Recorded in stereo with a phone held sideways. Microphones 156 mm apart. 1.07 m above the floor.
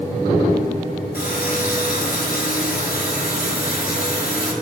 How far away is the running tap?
About 3 m.